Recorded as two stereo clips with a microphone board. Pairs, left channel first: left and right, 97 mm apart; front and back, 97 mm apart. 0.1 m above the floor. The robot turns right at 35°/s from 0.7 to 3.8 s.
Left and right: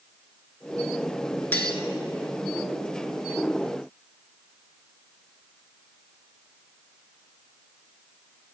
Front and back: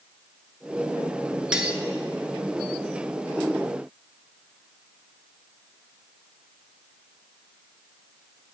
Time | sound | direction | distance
1.5 | cutlery clinking | 115° left | 0.7 m